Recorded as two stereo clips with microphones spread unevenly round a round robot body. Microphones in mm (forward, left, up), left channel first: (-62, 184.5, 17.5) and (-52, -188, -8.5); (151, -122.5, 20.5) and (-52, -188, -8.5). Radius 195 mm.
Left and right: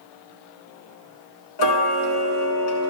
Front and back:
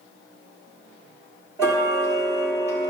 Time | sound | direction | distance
1.6 | ticking | 110° left | 1.1 m